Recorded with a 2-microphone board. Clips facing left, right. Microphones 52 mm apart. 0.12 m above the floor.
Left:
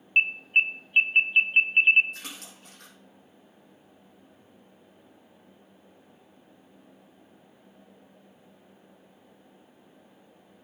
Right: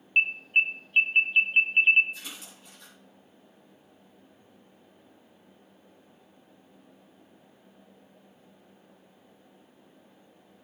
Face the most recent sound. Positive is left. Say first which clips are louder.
# left 1 dB
turn(degrees=65)  # may be behind; listen again after turning